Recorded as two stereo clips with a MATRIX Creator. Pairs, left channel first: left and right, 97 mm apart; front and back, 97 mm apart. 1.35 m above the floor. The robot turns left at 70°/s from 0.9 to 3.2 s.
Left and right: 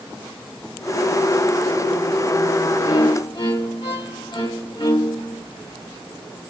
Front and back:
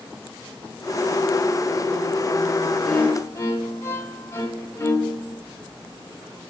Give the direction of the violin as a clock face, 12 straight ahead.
9 o'clock.